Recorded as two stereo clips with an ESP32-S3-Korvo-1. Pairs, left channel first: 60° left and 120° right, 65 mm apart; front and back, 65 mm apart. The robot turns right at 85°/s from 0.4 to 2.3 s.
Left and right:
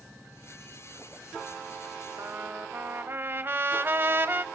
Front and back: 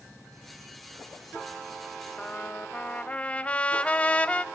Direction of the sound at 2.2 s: 80° right.